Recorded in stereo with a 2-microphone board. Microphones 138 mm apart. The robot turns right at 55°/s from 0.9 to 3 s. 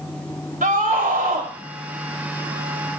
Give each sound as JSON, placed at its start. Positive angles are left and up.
{"t": 0.6, "sound": "a scream", "azimuth_deg": -100, "distance_m": 3.0}